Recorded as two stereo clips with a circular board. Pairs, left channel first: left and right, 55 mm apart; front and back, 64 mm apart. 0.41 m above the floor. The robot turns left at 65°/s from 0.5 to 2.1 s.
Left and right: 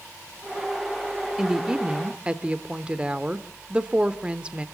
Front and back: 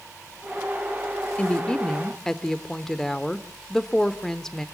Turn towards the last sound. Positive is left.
turn(degrees=-65)